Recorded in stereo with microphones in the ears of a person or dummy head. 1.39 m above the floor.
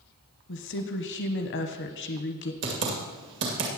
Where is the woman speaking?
55° left (ahead or behind), 1.1 m.